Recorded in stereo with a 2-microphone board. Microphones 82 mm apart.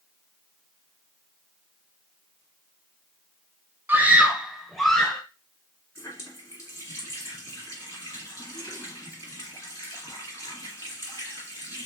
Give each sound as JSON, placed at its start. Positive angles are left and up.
{"t": 3.9, "sound": "a scream", "side_deg": -25, "distance_m": 1.1}
{"t": 6.0, "sound": "a running tap", "side_deg": 40, "distance_m": 2.0}